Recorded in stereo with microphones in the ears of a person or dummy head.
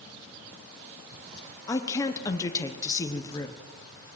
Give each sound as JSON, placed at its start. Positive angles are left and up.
{"t": 1.7, "sound": "a woman speaking", "side_deg": 15, "distance_m": 1.1}